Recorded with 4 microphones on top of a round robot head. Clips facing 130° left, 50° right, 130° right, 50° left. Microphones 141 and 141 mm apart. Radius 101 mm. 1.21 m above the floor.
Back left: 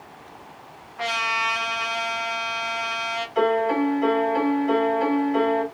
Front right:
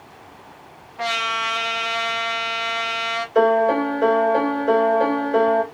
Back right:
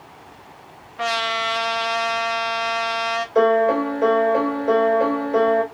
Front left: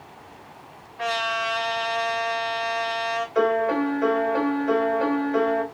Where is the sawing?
No sawing in this recording.